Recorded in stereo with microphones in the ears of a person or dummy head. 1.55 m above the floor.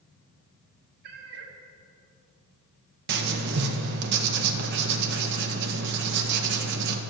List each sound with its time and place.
1.0 s a cat meowing: 55° right (ahead or behind), 1.5 m
3.1 s writing: 60° right (ahead or behind), 1.6 m